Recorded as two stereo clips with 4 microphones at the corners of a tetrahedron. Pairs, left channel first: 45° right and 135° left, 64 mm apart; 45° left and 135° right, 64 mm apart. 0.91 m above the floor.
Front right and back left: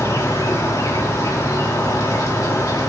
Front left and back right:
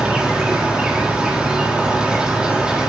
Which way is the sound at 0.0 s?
60° right.